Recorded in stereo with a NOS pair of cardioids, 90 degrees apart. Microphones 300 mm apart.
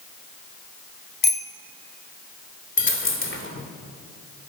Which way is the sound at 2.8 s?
45° left.